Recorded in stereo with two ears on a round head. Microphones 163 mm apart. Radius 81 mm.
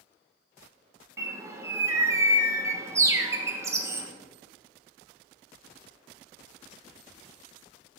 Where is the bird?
15° right (ahead or behind), 1.0 m.